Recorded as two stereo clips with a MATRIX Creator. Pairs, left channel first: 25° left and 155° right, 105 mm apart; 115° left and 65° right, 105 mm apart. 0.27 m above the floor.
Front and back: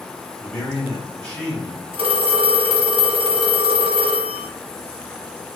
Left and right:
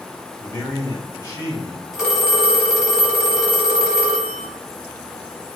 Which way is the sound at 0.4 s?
100° left.